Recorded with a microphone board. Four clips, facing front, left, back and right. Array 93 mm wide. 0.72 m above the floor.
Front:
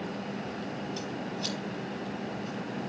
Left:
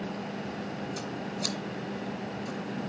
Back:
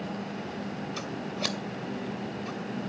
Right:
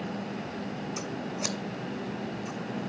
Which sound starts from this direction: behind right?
Scissors, at 1.0 s.